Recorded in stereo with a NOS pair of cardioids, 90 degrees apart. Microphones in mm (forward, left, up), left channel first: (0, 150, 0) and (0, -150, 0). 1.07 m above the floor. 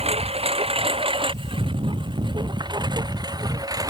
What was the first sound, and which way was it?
A lawn mower, 20° right.